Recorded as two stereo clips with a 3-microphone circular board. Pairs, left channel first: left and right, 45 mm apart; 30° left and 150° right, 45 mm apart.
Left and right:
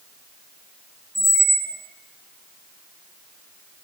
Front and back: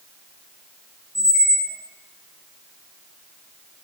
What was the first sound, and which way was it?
A squeak, 75° right.